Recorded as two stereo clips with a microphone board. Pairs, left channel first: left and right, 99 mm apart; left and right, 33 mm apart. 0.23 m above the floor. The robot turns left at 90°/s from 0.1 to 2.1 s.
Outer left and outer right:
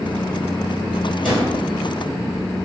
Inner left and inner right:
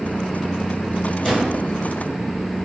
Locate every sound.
1.2 s a drawer: 5° right (ahead or behind), 1.6 m; by 1.5 s 25° right (ahead or behind), 1.6 m